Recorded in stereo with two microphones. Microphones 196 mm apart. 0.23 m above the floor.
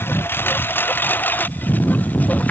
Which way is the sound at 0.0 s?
10° left (ahead or behind).